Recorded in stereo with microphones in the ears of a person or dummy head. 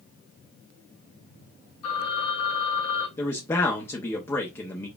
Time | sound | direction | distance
1.8 | a phone ringing | 75° left (ahead or behind) | 2.5 m
3.2 | a man speaking | 10° left (ahead or behind) | 0.7 m